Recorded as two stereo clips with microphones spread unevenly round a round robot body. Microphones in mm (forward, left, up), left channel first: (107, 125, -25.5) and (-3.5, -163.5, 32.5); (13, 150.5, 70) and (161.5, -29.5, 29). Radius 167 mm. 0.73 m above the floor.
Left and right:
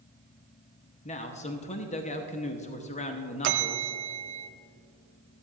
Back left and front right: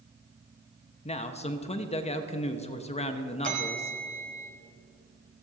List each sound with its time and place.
1.1 s a man speaking: 70° left, 0.9 m
3.4 s a bell: 120° right, 0.8 m